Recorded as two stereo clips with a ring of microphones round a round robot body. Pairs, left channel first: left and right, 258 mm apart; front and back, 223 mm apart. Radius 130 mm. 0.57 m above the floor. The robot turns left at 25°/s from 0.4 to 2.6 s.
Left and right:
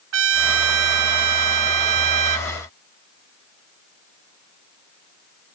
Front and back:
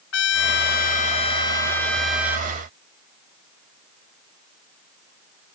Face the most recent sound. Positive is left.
turn(degrees=-105)